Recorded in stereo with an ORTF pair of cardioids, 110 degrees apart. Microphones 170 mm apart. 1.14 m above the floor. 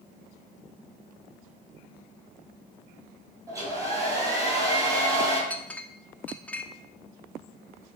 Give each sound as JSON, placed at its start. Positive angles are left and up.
{"t": 3.5, "sound": "a hair dryer", "azimuth_deg": -20, "distance_m": 3.5}
{"t": 5.5, "sound": "a clink", "azimuth_deg": 5, "distance_m": 0.8}